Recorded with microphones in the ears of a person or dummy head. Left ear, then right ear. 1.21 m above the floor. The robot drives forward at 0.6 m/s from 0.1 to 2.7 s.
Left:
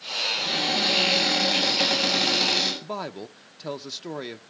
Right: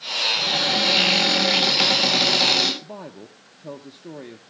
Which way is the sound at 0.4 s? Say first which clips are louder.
Right 3 dB; 45° right (ahead or behind).